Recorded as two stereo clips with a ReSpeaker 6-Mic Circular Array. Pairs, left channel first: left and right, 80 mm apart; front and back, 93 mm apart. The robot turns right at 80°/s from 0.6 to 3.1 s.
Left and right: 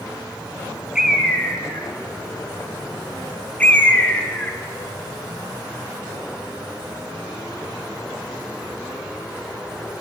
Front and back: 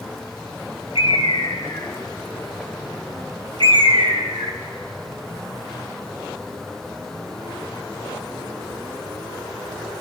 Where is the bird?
10° right, 2 m; by 4.6 s 160° left, 2 m.